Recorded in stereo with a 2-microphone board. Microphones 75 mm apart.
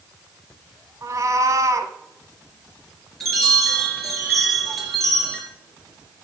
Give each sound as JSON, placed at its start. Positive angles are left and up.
{"t": 1.0, "sound": "a cat meowing", "side_deg": -45, "distance_m": 1.1}
{"t": 3.2, "sound": "a chime", "side_deg": 0, "distance_m": 3.0}